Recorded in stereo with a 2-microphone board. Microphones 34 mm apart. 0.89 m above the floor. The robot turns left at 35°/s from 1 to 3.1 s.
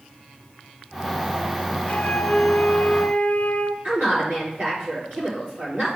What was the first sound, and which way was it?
A flute, 130° left.